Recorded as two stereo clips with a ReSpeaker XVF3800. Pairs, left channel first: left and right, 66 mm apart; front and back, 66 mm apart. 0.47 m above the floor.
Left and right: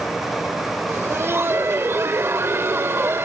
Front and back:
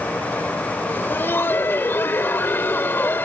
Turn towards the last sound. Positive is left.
turn(degrees=-50)